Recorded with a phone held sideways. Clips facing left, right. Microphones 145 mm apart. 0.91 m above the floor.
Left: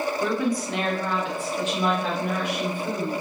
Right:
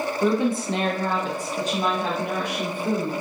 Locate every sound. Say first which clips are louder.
0.2 s a woman speaking: right 6 dB; 15° right (ahead or behind), 0.5 m; by 3.1 s 35° right (ahead or behind), 1.4 m